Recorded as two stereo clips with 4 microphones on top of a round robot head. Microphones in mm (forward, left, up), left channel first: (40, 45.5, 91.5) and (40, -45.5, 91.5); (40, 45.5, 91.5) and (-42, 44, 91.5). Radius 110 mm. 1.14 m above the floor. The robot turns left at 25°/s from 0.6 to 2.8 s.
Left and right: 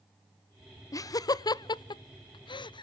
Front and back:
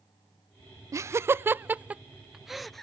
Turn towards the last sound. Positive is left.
turn(degrees=85)